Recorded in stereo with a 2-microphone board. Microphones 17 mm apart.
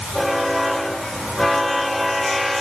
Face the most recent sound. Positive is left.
No sound to turn to.